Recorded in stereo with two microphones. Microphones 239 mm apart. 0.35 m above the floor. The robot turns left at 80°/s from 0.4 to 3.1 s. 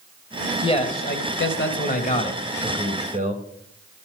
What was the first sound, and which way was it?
A man speaking, 160° left.